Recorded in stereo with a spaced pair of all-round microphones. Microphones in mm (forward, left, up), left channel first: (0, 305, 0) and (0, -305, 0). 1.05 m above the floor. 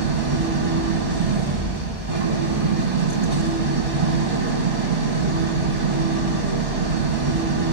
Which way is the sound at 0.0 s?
60° right (ahead or behind).